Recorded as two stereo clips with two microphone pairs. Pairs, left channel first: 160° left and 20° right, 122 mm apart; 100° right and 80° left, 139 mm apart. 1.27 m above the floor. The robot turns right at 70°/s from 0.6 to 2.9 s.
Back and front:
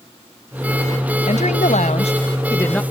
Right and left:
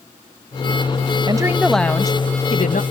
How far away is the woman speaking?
About 1.1 m.